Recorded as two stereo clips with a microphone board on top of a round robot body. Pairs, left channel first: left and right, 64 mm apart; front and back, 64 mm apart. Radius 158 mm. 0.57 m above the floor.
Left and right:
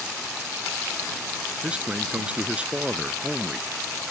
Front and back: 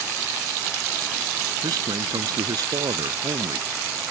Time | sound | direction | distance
1.6 | a man speaking | 165° right | ?